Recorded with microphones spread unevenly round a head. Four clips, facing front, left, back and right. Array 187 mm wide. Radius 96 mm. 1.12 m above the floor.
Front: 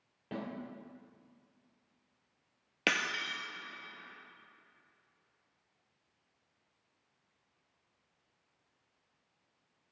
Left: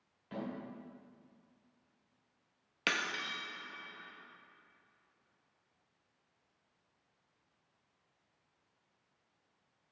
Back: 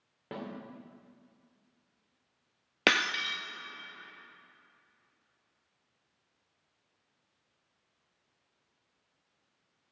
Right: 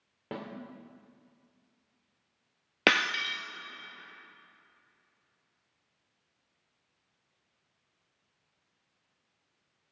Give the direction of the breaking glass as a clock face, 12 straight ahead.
4 o'clock.